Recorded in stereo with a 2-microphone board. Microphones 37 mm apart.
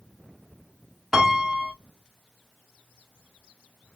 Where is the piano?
15° right (ahead or behind), 1.0 m.